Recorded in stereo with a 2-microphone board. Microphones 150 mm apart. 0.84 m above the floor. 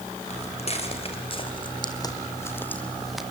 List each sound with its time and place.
0.3 s footsteps: 45° left (ahead or behind), 4.5 m; by 3.2 s 5° right (ahead or behind), 2.5 m